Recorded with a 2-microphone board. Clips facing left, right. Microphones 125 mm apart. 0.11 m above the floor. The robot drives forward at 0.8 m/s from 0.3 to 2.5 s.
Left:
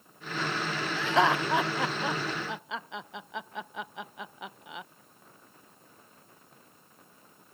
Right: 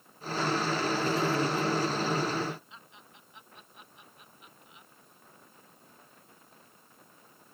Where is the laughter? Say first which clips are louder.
Left 7 dB; 75° left (ahead or behind); by 4.9 s 80° left.